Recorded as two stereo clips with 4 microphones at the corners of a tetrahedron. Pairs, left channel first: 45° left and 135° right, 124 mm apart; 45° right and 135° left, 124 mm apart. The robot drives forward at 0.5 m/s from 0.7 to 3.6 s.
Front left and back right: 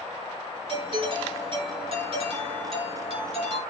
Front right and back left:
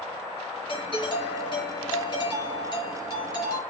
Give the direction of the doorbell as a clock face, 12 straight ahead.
3 o'clock.